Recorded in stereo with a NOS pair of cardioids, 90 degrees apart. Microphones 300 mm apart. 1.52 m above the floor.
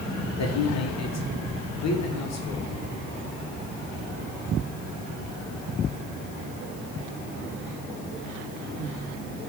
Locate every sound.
0.4 s a man speaking: 60° left, 1.4 m